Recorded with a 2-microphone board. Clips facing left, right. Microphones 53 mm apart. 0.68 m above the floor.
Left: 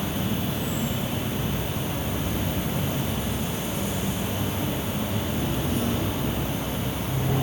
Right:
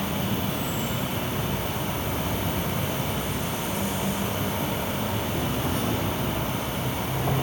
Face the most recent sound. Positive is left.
turn(degrees=-70)  # may be behind; listen again after turning